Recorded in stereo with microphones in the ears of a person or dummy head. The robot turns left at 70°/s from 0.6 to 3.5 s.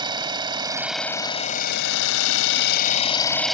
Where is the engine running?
160° right; by 3.5 s straight ahead.